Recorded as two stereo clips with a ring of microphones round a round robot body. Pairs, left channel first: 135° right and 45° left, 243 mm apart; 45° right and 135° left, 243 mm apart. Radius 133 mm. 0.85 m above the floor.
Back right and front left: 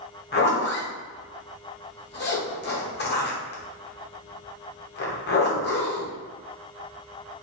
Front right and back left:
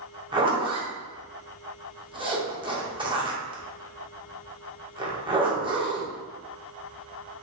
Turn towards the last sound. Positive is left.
turn(degrees=-160)